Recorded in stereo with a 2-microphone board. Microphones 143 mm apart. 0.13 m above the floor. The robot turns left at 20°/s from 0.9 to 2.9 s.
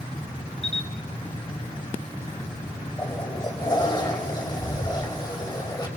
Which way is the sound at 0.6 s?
45° left (ahead or behind).